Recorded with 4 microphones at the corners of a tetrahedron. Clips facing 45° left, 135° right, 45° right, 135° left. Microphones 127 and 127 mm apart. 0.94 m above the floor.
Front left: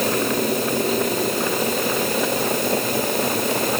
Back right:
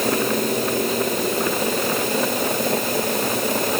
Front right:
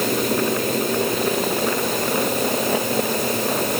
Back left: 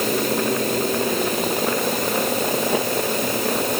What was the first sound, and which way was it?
Only background noise.